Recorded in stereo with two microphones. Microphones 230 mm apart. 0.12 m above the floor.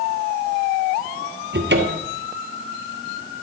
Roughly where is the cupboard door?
Right.